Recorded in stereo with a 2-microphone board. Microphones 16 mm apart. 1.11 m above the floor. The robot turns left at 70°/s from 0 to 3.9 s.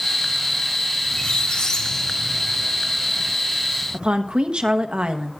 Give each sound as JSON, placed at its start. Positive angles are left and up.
{"t": 1.1, "sound": "a squeak", "azimuth_deg": 105, "distance_m": 2.0}
{"t": 3.9, "sound": "a woman speaking", "side_deg": -70, "distance_m": 0.9}